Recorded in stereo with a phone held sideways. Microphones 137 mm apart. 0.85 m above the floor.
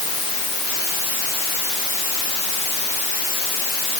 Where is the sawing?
No sawing in this recording.